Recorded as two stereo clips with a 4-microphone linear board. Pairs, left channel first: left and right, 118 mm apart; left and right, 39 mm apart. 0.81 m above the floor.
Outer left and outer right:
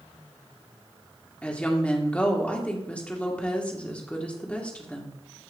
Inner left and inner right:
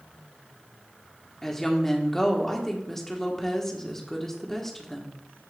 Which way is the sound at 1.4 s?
10° left (ahead or behind).